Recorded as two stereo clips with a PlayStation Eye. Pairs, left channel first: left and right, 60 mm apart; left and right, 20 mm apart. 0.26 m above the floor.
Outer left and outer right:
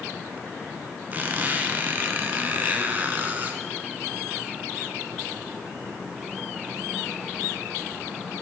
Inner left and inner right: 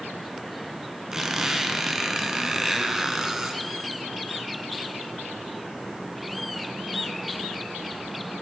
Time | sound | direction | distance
1.1 | a squeak | 30° right (ahead or behind) | 0.6 m